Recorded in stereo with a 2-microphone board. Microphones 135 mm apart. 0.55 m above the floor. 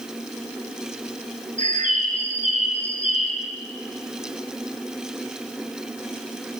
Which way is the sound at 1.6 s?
70° right (ahead or behind).